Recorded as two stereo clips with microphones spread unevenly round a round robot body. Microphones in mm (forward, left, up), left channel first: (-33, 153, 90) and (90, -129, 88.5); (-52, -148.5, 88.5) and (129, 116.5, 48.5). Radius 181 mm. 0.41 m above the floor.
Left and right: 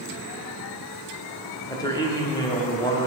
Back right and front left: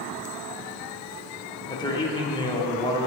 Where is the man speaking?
165° left, 1.2 m.